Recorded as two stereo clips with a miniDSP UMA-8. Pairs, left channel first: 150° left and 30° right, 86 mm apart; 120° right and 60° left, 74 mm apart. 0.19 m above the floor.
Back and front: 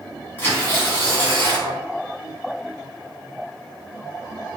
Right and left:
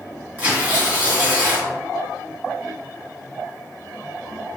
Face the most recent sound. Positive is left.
turn(degrees=105)